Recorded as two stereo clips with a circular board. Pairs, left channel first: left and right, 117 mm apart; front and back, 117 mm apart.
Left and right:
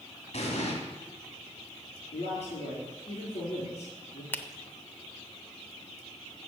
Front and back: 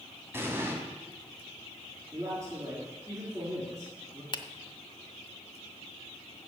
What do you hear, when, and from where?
0.3 s an explosion: 110° left, 2.5 m
2.1 s a man speaking: 120° left, 5 m
4.3 s a finger snap: 20° left, 0.7 m